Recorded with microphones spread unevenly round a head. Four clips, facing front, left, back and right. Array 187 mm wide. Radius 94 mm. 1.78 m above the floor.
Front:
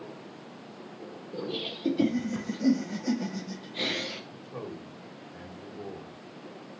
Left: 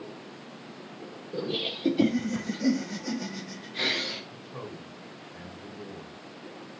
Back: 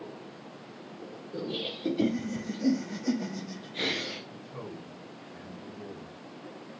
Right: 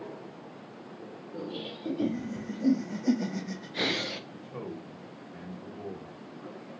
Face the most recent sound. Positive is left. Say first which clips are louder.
# right 1 dB, front 2 dB
turn(degrees=-40)